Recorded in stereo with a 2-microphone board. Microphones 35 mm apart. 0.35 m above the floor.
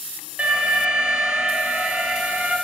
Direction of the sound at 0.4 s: 35° right (ahead or behind).